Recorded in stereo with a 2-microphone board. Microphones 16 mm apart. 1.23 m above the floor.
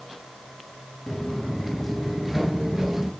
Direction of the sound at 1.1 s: 25° left (ahead or behind).